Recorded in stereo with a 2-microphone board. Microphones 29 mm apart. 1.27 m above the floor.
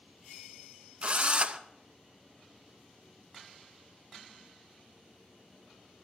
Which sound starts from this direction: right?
A drill, at 1.0 s.